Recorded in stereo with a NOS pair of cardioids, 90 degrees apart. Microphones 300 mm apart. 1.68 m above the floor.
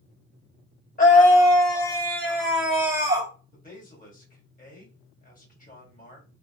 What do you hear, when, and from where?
1.0 s a scream: 25° left, 1.7 m; by 3.3 s 15° right, 1.7 m
3.5 s a man speaking: 25° left, 1.6 m